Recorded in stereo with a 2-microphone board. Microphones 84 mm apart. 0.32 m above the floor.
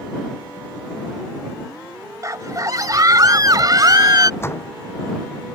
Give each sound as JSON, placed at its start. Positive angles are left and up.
{"t": 2.2, "sound": "a scream", "side_deg": -40}
{"t": 4.4, "sound": "a door slam", "side_deg": 30}